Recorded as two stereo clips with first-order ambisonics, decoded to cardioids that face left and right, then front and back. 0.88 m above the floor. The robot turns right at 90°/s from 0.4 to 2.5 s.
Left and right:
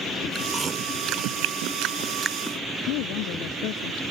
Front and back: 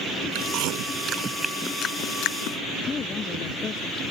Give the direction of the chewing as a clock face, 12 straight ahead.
6 o'clock.